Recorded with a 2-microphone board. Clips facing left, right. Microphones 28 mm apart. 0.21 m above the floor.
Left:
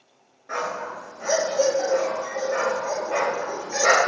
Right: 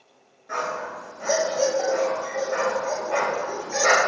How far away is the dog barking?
About 1.0 m.